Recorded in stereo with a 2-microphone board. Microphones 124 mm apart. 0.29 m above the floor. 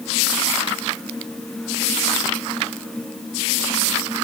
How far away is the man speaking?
I don't hear a man speaking.